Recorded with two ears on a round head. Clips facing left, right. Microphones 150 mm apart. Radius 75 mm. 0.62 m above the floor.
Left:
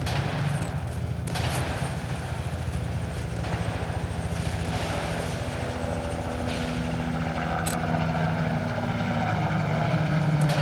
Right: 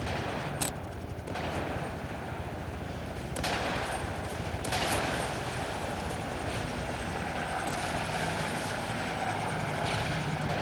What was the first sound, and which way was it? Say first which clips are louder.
A helicopter: left 4 dB; 65° left (ahead or behind).